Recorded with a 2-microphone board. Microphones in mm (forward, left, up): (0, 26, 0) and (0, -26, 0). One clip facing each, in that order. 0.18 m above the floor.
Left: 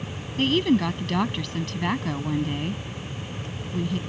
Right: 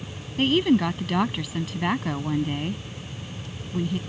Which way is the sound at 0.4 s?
10° right (ahead or behind).